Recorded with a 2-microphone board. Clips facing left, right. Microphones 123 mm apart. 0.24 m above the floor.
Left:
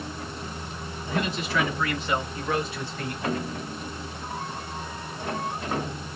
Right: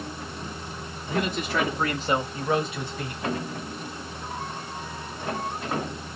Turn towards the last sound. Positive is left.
turn(degrees=-5)  # may be behind; listen again after turning